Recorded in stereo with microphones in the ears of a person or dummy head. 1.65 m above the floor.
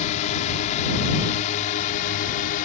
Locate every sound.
0.0 s a drone: 40° left (ahead or behind); by 2.7 s 45° left (ahead or behind)